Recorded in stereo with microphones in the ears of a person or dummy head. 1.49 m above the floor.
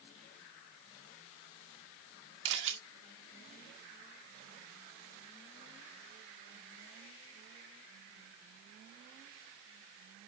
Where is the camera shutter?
70° right (ahead or behind), 2.5 m.